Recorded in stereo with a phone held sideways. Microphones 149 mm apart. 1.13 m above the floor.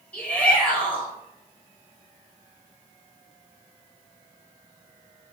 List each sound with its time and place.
0.1 s a shout: 10° left (ahead or behind), 5 m